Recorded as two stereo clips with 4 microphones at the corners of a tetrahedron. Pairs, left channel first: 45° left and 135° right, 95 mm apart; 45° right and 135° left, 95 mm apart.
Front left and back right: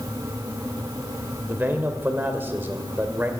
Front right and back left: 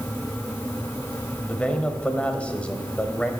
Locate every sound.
1.5 s a man speaking: 100° right, 1.0 m